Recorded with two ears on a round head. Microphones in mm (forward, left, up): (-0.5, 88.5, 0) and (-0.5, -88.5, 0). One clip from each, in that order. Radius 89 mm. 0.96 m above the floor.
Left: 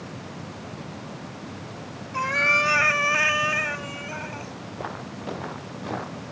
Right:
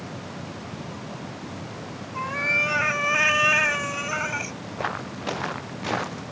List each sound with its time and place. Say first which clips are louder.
2.1 s a cat meowing: left 3 dB; 45° left (ahead or behind); by 4.5 s 65° right (ahead or behind)
4.8 s footsteps: right 6 dB; 55° right (ahead or behind); by 6.2 s 65° right (ahead or behind)